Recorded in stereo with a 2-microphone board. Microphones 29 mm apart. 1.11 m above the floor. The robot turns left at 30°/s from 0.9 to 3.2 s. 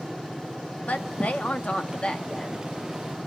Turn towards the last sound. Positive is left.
turn(degrees=5)